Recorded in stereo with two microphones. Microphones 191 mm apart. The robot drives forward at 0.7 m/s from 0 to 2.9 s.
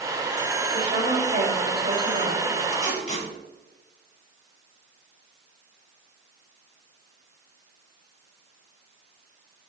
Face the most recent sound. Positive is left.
turn(degrees=40)  # may be behind; listen again after turning